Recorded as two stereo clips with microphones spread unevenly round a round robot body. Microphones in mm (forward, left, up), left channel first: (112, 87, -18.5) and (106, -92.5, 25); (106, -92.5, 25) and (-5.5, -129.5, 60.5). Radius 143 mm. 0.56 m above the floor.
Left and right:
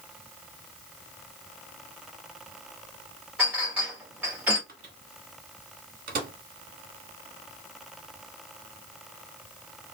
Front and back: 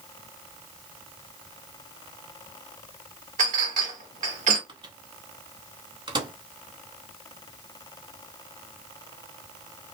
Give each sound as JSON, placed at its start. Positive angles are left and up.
{"t": 3.4, "sound": "a clink", "azimuth_deg": 175, "distance_m": 1.1}
{"t": 4.7, "sound": "a microwave", "azimuth_deg": -115, "distance_m": 1.1}